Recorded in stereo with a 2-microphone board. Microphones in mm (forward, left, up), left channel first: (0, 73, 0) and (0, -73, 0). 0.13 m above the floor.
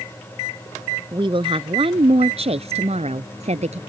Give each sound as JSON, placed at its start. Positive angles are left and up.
{"t": 1.1, "sound": "a woman speaking", "side_deg": -35}